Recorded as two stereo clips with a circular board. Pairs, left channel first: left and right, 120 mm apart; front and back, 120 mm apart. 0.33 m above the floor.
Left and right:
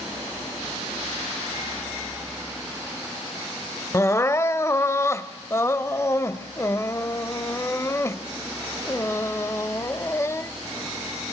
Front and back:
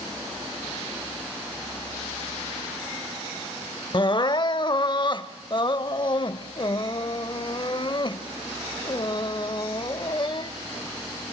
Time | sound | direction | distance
3.9 | crying | 30° left | 0.6 m